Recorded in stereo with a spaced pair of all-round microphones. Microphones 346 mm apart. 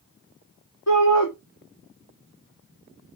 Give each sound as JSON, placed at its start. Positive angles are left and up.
{"t": 0.9, "sound": "a shout", "side_deg": 45, "distance_m": 3.0}